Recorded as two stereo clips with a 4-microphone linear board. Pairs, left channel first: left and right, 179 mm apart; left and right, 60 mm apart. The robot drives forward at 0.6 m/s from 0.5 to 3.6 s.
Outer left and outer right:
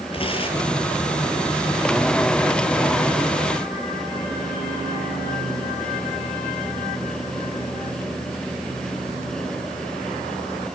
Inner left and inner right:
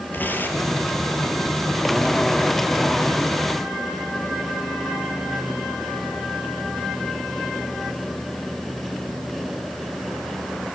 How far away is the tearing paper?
About 6 m.